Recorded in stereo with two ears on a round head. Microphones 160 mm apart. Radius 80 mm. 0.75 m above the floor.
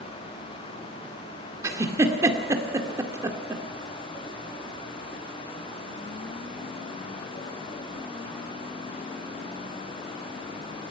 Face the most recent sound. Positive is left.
turn(degrees=-15)  # may be behind; listen again after turning